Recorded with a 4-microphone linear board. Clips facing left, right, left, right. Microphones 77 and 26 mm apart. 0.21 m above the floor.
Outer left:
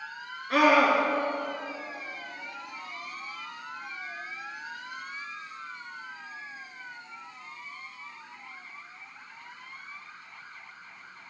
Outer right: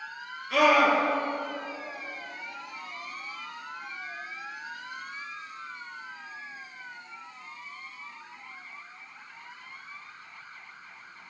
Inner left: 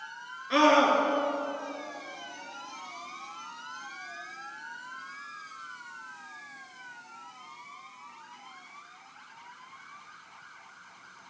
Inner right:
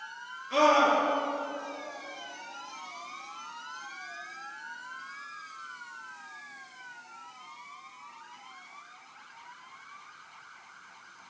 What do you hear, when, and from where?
0.5 s a scream: 55° left (ahead or behind), 3.5 m